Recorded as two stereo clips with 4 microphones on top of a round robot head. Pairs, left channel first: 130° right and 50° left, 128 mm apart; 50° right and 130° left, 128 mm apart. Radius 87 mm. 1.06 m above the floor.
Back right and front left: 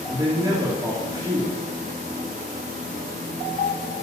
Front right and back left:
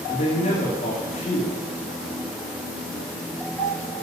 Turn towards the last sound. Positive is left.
turn(degrees=-10)